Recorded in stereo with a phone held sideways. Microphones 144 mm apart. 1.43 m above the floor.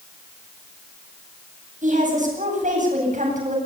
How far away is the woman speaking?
About 9.5 m.